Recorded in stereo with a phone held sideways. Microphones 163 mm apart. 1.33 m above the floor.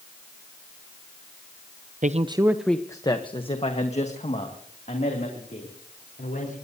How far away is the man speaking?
About 0.7 m.